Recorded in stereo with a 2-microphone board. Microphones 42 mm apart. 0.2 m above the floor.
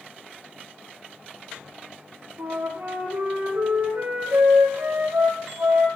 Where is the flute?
80° right, 7 m.